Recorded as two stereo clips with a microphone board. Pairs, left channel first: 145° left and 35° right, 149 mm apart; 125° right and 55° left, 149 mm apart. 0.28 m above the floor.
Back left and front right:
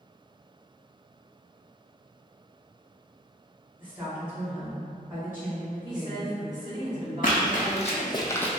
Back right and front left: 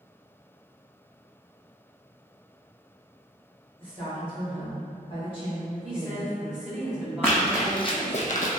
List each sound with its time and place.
3.8 s a woman speaking: 105° right, 1.7 m
5.8 s a woman speaking: 20° right, 1.7 m
7.2 s running footsteps: 160° left, 0.8 m; by 8.6 s 130° right, 0.5 m